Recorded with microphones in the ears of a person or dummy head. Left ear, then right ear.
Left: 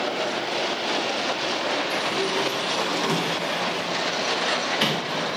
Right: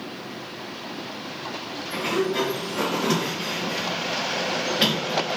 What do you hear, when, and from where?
1.9 s a sliding door: 30° left (ahead or behind), 1.3 m